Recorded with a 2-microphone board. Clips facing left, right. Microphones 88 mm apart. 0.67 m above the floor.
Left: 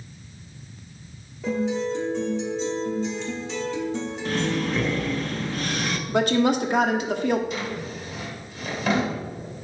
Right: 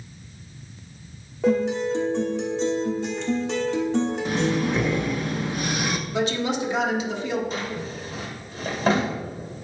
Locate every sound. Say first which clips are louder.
1.4 s a guitar: right 4 dB; 65° right (ahead or behind), 1.2 m
4.2 s breathing: right 2 dB; 15° right (ahead or behind), 0.5 m
6.1 s a woman speaking: left 7 dB; 55° left (ahead or behind), 0.9 m
7.5 s a drawer: even; 35° right (ahead or behind), 1.7 m